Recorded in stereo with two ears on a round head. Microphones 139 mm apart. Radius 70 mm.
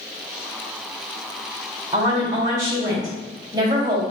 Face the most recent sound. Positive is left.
turn(degrees=-25)  # may be behind; listen again after turning